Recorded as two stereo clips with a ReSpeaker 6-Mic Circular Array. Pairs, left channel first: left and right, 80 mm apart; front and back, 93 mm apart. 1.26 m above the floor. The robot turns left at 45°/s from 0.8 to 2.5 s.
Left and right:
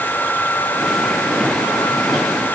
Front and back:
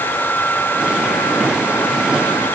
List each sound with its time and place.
Only background noise.